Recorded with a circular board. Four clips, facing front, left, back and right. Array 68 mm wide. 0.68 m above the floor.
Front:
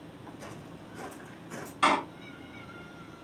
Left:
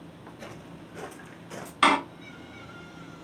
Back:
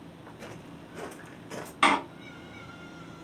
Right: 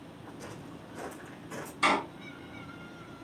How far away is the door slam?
About 0.7 m.